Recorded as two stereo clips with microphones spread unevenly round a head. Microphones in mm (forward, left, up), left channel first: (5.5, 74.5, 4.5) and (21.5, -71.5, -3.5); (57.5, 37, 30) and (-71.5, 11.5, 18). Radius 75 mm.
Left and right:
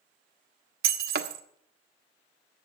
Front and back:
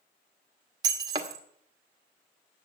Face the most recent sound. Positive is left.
turn(degrees=-105)